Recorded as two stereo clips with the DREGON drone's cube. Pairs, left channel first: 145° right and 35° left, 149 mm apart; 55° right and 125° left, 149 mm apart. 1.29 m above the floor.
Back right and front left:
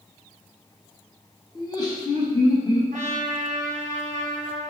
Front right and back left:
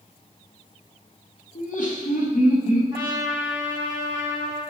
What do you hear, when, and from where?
1.6 s laughter: 80° right, 1.3 m
2.9 s a trumpet: 65° left, 1.7 m